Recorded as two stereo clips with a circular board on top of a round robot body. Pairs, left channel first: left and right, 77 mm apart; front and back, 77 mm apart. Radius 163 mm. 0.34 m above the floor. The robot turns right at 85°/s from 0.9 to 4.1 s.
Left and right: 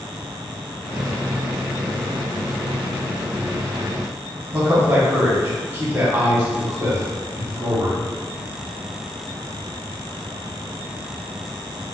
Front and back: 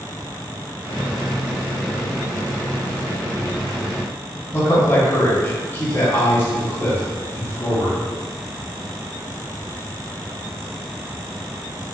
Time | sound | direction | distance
4.5 | a man speaking | 45° right | 1.2 m